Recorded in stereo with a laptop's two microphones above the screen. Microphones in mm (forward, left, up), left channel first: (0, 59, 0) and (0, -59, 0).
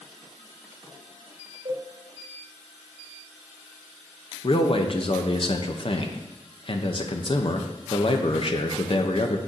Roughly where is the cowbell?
Right.